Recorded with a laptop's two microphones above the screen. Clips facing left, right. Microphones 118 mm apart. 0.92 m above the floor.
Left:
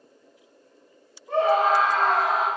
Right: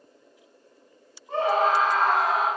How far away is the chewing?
No chewing in this recording.